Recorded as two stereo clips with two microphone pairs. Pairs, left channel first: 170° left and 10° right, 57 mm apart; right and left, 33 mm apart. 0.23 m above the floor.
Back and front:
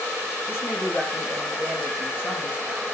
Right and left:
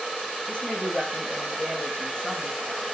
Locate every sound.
0.5 s a woman speaking: 140° right, 9.5 m; by 2.9 s 135° right, 10 m